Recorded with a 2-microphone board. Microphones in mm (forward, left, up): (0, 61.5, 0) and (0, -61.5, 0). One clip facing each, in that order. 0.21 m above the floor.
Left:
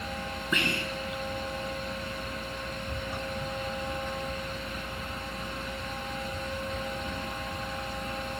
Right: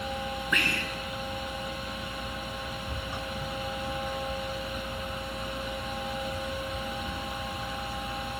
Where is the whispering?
25° left (ahead or behind), 1.2 m.